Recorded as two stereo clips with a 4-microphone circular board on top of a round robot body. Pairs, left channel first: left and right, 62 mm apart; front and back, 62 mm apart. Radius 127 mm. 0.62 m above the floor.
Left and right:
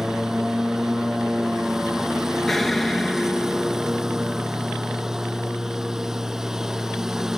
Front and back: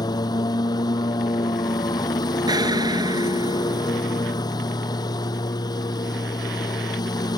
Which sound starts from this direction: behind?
An explosion, at 2.5 s.